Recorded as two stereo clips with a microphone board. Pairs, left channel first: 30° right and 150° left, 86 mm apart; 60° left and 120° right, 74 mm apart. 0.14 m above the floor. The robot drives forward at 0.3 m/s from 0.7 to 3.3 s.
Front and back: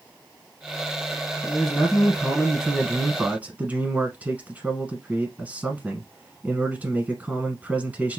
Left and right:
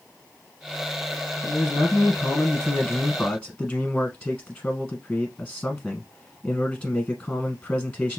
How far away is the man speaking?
About 1.2 m.